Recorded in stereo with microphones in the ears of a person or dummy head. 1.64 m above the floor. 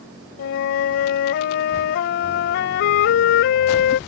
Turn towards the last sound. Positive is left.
turn(degrees=55)  # may be behind; listen again after turning